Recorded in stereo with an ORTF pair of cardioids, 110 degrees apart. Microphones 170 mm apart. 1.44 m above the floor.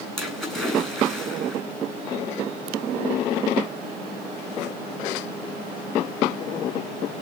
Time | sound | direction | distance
0.2 | a splash | straight ahead | 9.5 m